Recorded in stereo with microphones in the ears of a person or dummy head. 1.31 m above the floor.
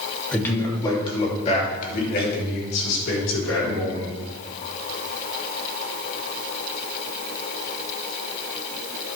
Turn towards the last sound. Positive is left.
turn(degrees=75)  # may be behind; listen again after turning